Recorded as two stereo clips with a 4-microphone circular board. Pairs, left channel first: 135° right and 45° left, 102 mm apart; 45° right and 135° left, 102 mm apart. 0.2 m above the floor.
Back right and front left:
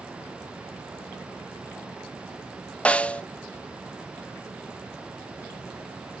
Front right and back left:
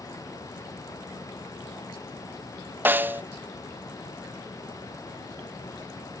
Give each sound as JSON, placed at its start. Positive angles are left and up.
{"t": 2.9, "sound": "a snare drum", "azimuth_deg": 165, "distance_m": 0.5}